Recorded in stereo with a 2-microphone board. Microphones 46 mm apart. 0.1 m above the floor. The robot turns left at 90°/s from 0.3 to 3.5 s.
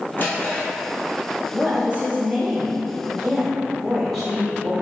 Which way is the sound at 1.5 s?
10° right.